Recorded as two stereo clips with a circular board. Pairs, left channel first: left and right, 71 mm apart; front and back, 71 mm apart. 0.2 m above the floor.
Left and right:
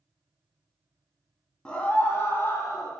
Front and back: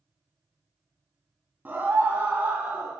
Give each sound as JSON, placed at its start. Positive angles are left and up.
{"t": 1.6, "sound": "a scream", "azimuth_deg": 150, "distance_m": 1.1}